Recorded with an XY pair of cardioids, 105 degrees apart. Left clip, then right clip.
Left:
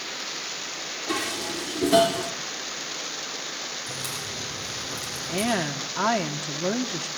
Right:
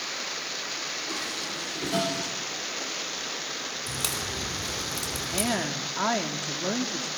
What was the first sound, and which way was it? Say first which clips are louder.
Dishes clattering: left 3 dB; 60° left.